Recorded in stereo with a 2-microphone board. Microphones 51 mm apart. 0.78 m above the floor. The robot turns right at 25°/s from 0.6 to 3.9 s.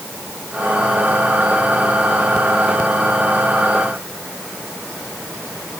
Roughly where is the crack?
No crack in this recording.